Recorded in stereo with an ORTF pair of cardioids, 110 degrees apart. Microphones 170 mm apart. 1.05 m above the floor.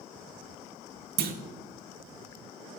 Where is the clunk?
70° right, 0.8 m.